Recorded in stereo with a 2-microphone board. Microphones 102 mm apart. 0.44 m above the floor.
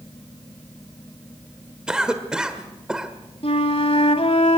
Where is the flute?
70° left (ahead or behind), 1.9 m.